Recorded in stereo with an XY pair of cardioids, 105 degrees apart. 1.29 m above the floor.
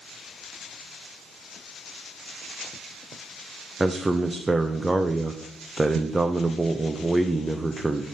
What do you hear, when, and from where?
3.8 s a man speaking: 15° right, 0.5 m